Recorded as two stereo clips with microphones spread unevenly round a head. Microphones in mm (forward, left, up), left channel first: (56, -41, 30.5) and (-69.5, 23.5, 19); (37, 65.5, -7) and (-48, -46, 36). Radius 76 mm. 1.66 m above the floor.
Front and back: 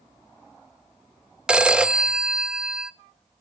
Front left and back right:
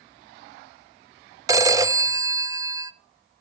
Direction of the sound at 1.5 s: 120° right.